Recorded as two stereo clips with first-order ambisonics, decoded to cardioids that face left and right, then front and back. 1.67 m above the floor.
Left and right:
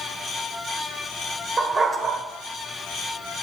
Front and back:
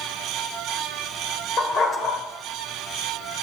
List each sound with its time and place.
1.6 s a dog barking: 35° right, 1.6 m